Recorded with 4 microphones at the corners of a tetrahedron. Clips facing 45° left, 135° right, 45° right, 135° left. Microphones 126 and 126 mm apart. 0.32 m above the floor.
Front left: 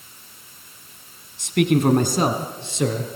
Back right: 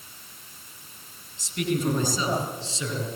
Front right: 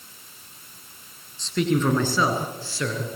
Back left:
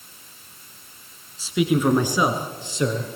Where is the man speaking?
50° left, 3 m; by 3.1 s 70° left, 4.5 m.